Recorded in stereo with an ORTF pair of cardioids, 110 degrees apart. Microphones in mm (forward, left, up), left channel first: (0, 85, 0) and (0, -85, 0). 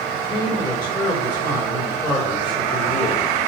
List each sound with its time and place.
0.1 s a man speaking: 25° left, 3.5 m